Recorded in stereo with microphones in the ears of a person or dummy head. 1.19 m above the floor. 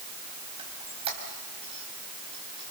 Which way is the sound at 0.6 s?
30° right (ahead or behind).